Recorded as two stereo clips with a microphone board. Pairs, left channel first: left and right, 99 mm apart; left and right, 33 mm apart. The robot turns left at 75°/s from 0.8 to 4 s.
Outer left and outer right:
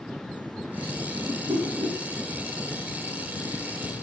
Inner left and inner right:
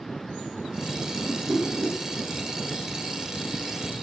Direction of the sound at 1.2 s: 75° right.